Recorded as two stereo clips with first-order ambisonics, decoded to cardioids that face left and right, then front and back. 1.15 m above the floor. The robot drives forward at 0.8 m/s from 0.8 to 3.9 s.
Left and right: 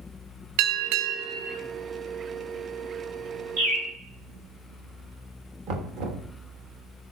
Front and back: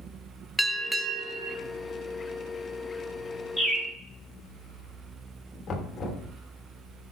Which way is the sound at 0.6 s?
85° right.